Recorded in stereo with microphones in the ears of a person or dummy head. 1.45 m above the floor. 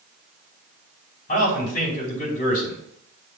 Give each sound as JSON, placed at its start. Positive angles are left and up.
{"t": 1.3, "sound": "a man speaking", "side_deg": 40, "distance_m": 4.5}